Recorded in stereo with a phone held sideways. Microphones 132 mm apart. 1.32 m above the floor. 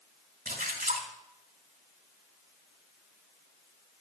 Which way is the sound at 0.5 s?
85° right.